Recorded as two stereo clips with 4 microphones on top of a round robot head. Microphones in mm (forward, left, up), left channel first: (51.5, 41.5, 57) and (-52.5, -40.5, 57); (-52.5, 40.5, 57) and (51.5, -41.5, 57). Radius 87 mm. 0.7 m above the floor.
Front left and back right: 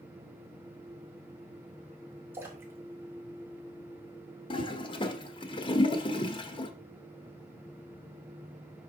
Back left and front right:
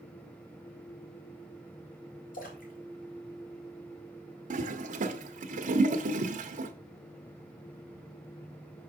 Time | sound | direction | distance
2.3 | a splash | 145° left | 1.9 m
4.5 | a toilet flushing | 15° right | 1.1 m